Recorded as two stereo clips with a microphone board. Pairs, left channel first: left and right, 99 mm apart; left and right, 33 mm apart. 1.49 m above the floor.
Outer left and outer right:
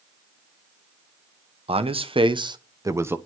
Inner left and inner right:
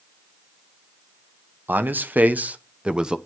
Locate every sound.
1.7 s a man speaking: 75° right (ahead or behind), 1.1 m; by 3.2 s 20° right (ahead or behind), 0.8 m